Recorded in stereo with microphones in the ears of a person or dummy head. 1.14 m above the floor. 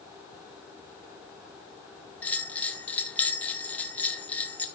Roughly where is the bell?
Centre.